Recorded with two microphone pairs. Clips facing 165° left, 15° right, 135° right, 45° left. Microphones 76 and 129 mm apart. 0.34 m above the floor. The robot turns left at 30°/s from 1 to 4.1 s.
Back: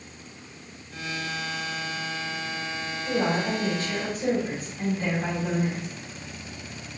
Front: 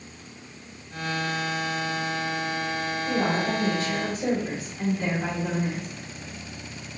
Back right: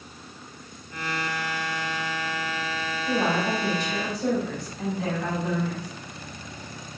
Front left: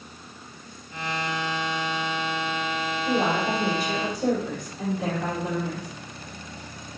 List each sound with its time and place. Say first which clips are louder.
3.1 s a woman speaking: back 1 dB, even; 60° left, 1.4 m; by 5.9 s 30° left, 1.4 m